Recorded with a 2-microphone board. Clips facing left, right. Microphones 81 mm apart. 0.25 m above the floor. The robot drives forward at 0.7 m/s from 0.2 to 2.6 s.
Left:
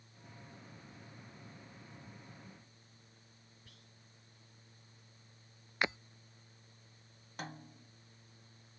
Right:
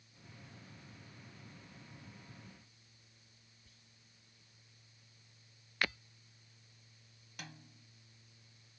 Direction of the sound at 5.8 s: 20° left (ahead or behind).